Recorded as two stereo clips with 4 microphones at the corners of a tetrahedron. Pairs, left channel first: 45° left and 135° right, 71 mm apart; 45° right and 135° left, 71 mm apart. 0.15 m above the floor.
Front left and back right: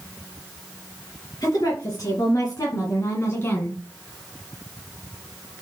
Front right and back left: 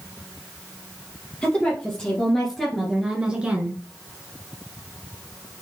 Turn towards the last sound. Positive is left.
turn(degrees=95)